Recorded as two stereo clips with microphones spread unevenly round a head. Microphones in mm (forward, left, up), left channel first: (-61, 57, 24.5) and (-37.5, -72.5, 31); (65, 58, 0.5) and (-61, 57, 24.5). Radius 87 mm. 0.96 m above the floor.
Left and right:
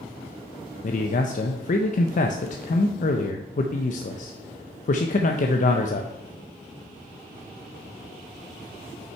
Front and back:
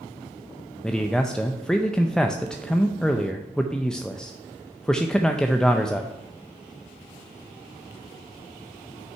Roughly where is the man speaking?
Left.